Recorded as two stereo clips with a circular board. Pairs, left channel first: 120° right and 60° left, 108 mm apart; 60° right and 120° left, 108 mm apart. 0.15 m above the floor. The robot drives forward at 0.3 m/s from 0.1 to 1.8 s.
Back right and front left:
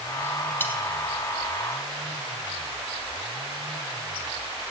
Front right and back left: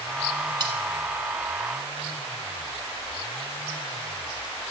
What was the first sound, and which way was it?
Cutlery clinking, 170° left.